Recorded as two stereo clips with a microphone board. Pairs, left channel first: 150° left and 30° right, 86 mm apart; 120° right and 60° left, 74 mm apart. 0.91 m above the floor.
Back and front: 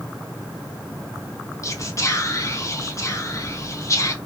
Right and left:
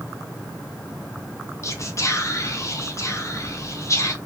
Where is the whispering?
165° right, 0.5 m.